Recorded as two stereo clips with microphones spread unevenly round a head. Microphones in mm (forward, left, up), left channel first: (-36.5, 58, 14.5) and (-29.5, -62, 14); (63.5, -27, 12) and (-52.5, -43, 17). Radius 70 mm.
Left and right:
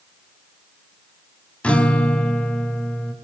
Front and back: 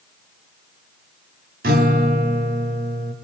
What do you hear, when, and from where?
1.6 s a guitar: 175° left, 2.0 m